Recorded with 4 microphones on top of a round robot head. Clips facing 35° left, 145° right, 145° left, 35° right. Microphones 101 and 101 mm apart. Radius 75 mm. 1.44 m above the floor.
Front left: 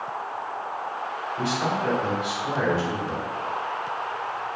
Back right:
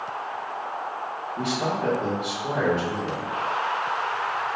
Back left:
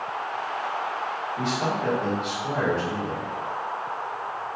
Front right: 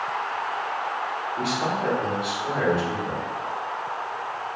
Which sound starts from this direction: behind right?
A man speaking, at 1.4 s.